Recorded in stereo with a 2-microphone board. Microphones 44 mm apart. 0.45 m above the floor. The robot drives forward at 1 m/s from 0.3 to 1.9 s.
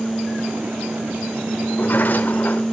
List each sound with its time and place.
1.7 s a sliding door: 40° left (ahead or behind), 1.6 m